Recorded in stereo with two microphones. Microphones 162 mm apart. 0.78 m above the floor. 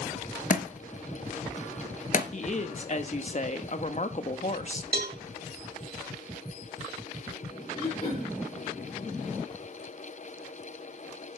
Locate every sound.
0.5 s a thud: 55° left (ahead or behind), 1.4 m
2.3 s a woman speaking: 45° left (ahead or behind), 1.2 m
4.9 s a cowbell: 75° right (ahead or behind), 1.6 m
7.8 s throat clearing: 30° left (ahead or behind), 6.5 m